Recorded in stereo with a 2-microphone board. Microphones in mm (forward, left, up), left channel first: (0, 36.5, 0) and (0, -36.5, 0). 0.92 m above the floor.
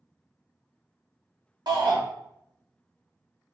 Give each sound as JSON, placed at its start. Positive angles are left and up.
{"t": 1.7, "sound": "a shout", "side_deg": -70, "distance_m": 2.0}